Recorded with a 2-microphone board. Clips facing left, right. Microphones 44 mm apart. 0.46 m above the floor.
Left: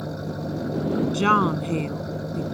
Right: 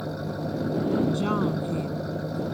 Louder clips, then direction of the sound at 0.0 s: Even; 5° right (ahead or behind).